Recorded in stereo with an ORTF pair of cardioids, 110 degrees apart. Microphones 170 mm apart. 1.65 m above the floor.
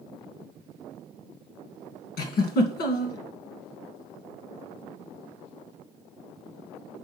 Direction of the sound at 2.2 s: 70° left.